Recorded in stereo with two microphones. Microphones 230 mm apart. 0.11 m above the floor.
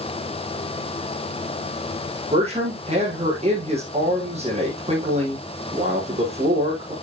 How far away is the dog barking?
I don't hear a dog barking.